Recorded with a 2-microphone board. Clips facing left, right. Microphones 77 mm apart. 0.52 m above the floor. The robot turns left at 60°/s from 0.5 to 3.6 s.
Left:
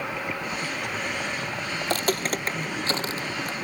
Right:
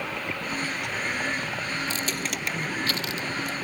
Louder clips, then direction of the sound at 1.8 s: Left 4 dB; 60° left (ahead or behind).